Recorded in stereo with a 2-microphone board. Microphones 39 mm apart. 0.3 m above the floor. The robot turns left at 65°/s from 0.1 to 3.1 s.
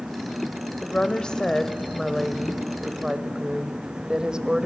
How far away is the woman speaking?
About 0.9 m.